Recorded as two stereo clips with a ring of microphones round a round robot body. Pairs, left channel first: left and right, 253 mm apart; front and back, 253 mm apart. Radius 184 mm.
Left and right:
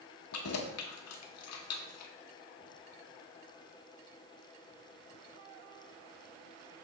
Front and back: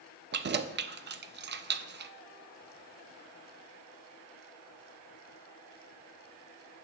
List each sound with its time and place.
0.3 s keys jangling: 125° left, 0.5 m